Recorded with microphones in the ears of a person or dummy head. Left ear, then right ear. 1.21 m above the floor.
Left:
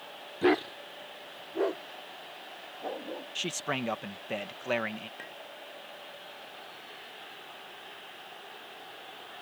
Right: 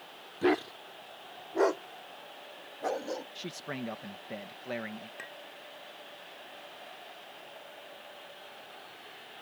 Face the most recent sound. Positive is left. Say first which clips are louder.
# even
turn(degrees=-20)  # may be behind; listen again after turning